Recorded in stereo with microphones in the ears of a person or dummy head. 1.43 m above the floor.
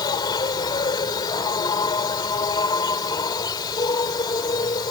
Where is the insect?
25° left (ahead or behind).